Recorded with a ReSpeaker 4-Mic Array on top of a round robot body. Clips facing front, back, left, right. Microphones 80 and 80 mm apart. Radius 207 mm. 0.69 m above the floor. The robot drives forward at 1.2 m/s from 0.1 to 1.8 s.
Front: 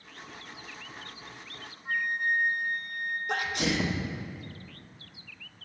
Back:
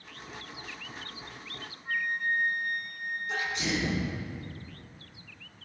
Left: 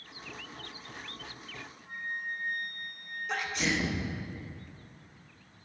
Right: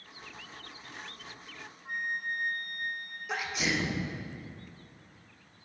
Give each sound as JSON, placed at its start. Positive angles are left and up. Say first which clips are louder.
{"t": 1.9, "sound": "a flute", "louder": "front 1 dB, right 3 dB", "azimuth_deg": -70, "distance_m": 0.8}
{"t": 3.3, "sound": "a sneeze", "louder": "front 2 dB, even", "azimuth_deg": -5, "distance_m": 1.0}